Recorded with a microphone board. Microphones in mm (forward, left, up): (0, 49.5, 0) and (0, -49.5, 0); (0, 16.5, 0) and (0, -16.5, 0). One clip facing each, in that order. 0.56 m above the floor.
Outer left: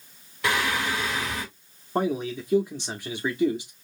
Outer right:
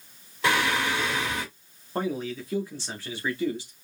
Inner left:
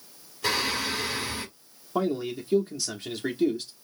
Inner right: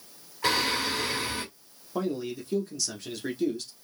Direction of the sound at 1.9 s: 20° left (ahead or behind).